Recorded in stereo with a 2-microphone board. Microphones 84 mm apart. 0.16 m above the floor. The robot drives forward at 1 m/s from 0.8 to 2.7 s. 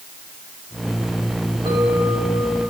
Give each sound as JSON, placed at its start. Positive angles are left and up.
{"t": 1.6, "sound": "a clink", "side_deg": -80, "distance_m": 6.5}